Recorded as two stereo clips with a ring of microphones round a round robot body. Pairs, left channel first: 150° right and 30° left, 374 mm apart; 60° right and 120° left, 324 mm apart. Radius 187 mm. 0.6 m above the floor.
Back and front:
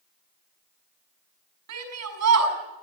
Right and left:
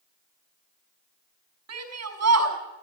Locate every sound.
1.7 s a shout: 80° left, 6.5 m